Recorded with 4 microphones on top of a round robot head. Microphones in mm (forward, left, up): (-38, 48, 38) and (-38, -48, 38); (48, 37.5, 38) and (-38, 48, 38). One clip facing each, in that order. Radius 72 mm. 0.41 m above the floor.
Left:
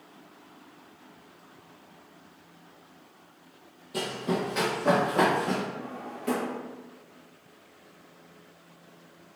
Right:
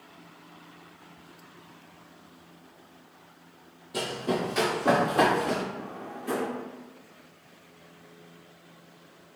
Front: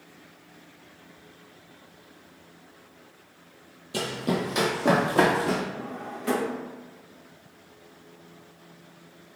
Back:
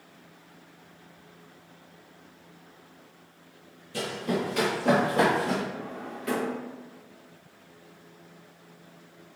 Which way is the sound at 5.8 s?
50° left.